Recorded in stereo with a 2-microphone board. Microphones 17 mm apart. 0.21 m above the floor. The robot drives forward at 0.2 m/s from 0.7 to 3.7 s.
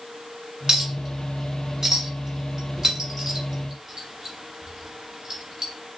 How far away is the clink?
About 1.7 m.